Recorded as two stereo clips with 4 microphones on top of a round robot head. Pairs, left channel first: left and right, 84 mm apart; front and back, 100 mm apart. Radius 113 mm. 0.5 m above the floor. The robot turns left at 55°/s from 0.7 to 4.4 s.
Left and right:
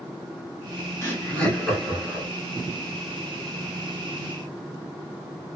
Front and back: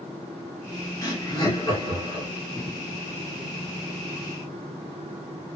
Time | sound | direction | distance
1.0 | laughter | 50° left | 1.7 m